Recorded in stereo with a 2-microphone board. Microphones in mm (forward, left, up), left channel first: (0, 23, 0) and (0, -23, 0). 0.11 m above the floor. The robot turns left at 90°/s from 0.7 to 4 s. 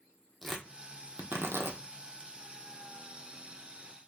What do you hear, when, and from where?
0.4 s tearing paper: 5° left (ahead or behind), 0.7 m; by 1.8 s 75° right (ahead or behind), 0.7 m